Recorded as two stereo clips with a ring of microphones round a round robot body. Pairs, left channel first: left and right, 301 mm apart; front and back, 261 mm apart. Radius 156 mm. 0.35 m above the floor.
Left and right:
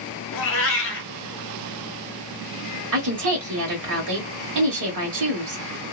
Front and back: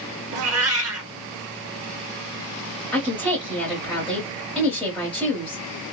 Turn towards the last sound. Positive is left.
turn(degrees=-85)